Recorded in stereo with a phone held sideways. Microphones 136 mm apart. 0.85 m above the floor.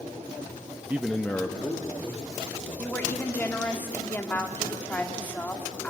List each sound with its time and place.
0.9 s a man speaking: 15° right (ahead or behind), 0.6 m; by 3.6 s 30° left (ahead or behind), 4 m
2.8 s a woman speaking: 15° left (ahead or behind), 1.8 m